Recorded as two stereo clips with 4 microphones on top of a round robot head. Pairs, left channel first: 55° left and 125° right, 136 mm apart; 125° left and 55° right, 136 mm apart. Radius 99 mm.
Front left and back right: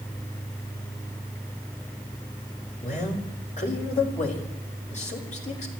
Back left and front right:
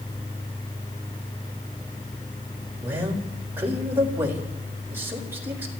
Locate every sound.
2.8 s a man speaking: 20° left, 4.5 m